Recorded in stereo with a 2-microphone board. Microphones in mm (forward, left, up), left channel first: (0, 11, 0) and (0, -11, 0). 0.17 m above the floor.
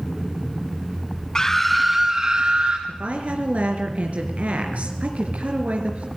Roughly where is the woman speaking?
Right.